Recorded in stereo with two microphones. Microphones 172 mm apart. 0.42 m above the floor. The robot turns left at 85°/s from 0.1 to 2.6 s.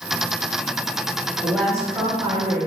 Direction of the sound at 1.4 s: 30° left.